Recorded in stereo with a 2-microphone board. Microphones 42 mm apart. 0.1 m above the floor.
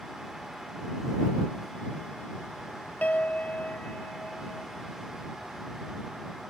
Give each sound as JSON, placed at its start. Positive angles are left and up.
{"t": 3.0, "sound": "a piano", "side_deg": 35}